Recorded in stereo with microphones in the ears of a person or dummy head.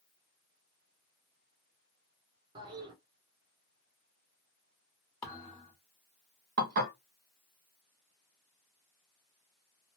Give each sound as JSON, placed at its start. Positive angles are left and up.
{"t": 2.5, "sound": "a toilet flushing", "side_deg": -30, "distance_m": 1.0}
{"t": 5.2, "sound": "a thud", "side_deg": 15, "distance_m": 1.3}
{"t": 6.6, "sound": "dishes clattering", "side_deg": -55, "distance_m": 0.8}